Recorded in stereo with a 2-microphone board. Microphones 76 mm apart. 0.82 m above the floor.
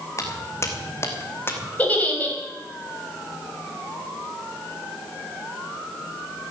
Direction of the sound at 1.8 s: 20° left (ahead or behind).